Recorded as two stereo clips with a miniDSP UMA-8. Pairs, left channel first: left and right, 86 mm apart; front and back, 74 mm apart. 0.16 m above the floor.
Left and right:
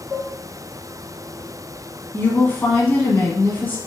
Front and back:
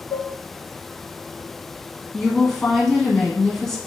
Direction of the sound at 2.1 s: 75° left.